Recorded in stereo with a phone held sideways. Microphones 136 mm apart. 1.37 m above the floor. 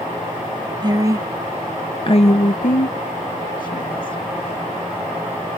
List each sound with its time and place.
0.8 s a woman speaking: 30° right (ahead or behind); by 4.2 s 90° left